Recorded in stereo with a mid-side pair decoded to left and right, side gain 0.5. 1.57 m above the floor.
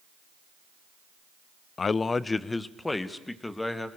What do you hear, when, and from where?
1.8 s a man speaking: 40° left, 0.6 m; by 3.9 s 15° left, 2.5 m